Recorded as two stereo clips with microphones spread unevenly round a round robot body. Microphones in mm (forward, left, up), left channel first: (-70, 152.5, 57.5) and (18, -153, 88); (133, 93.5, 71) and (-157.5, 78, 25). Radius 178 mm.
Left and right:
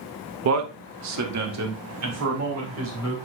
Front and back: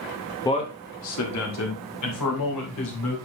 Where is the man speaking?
80° right, 0.8 m; by 3.1 s 30° right, 4 m.